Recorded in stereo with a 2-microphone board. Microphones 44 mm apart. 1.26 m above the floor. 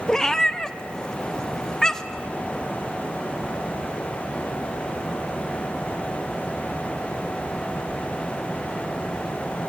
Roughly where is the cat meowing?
Centre.